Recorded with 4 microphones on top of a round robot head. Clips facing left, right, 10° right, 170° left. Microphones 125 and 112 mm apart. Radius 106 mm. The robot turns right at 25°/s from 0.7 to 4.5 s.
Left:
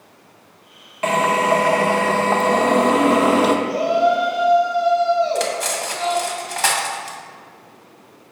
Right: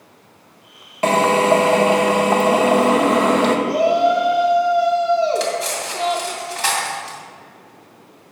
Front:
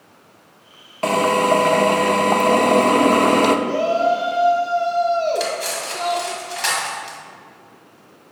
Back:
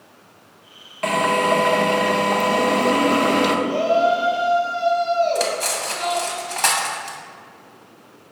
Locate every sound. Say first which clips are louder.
1.0 s a drill: right 3 dB, front 2 dB; 50° right, 0.7 m; by 3.6 s 15° left, 0.7 m
3.7 s a shout: right 2 dB, even; 35° right, 1.6 m; by 6.3 s 15° right, 1.6 m
5.3 s cutlery clinking: right 1 dB, even; 130° left, 1.7 m